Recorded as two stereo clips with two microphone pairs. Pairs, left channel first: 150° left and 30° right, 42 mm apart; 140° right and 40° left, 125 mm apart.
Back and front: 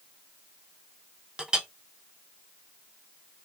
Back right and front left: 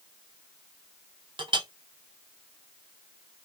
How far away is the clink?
About 0.6 m.